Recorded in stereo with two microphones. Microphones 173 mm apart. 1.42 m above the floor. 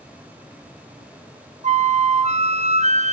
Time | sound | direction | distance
1.6 | a flute | 45° right (ahead or behind) | 0.5 m